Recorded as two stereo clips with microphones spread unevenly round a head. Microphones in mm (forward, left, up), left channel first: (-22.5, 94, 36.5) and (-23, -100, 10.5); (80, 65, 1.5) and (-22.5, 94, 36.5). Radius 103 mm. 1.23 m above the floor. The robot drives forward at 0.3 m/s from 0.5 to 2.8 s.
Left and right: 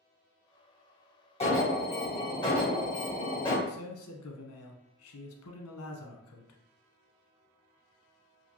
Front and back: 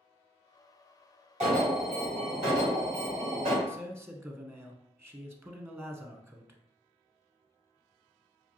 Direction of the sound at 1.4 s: 150° left.